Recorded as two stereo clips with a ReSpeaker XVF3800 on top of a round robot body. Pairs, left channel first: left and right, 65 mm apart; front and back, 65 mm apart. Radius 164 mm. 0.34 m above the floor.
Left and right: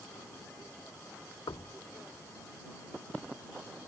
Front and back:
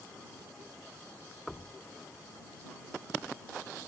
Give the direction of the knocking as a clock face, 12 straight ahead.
9 o'clock.